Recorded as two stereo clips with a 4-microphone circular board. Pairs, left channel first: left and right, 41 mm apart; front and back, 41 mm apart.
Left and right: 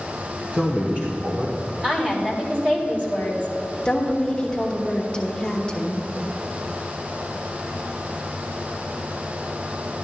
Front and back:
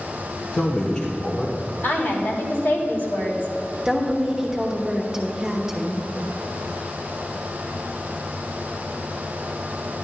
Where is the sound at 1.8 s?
30° right, 3 m.